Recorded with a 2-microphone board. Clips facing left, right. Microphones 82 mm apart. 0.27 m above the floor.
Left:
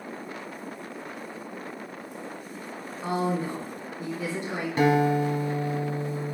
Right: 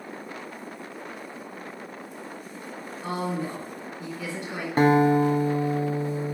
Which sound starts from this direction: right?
A guitar, at 4.8 s.